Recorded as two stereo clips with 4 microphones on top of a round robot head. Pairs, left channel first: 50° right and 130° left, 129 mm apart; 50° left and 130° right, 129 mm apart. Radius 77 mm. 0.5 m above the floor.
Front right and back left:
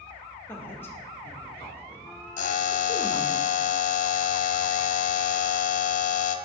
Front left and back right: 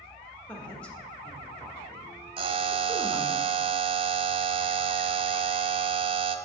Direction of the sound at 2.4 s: 75° right.